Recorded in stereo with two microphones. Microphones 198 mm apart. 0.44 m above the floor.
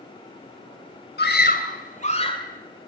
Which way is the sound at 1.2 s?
60° left (ahead or behind).